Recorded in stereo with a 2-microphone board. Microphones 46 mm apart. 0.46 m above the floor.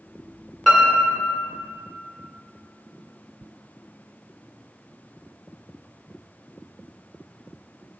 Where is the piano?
Centre (ahead or behind), 1.3 m.